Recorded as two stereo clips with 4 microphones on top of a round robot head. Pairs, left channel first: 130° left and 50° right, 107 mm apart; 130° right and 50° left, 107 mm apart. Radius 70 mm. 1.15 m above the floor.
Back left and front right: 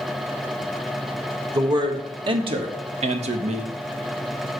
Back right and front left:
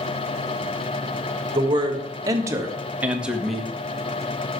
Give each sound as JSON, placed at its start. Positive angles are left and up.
{"t": 1.5, "sound": "a man speaking", "azimuth_deg": 5, "distance_m": 1.9}